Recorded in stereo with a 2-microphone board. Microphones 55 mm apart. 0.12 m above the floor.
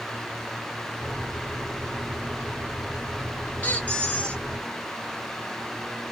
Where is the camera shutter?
No camera shutter in this recording.